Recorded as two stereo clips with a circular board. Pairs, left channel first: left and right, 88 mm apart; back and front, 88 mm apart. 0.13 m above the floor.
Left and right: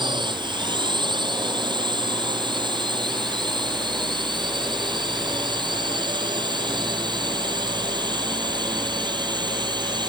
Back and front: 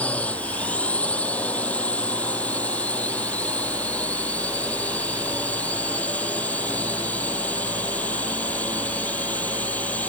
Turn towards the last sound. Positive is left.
turn(degrees=-110)